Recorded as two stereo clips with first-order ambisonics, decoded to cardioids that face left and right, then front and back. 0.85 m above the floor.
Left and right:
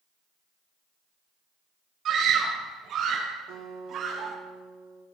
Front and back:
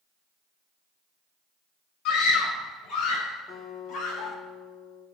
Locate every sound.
2.0 s a scream: 35° right, 5 m
3.5 s a guitar: 65° right, 7 m